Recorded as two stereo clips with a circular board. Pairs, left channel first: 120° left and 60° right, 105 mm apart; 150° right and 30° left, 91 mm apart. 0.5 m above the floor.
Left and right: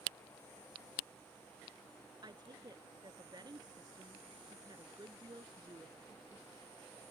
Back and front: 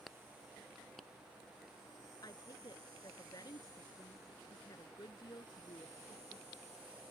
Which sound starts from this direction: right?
A woman speaking, at 2.2 s.